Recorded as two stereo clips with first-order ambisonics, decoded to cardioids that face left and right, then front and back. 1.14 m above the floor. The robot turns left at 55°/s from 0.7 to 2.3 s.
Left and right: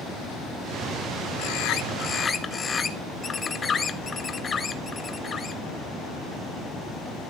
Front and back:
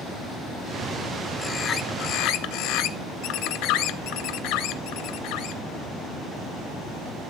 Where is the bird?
70° left, 0.8 m; by 5.6 s 20° left, 0.8 m.